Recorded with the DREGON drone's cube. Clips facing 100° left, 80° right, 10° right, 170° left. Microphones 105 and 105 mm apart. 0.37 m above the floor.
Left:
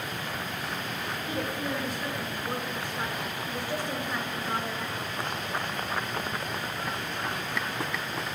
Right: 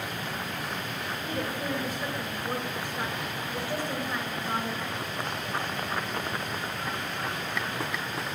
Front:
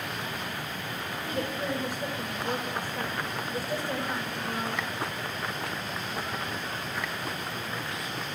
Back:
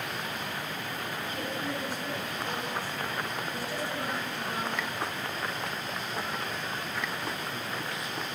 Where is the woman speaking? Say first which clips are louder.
Even, front 5 dB; straight ahead, 1.2 m.